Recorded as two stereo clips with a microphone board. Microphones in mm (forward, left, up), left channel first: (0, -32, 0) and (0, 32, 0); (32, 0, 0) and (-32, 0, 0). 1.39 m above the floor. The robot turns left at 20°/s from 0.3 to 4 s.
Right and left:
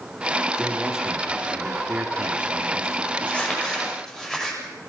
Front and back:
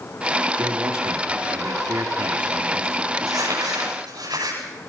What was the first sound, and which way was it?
A man speaking, straight behind.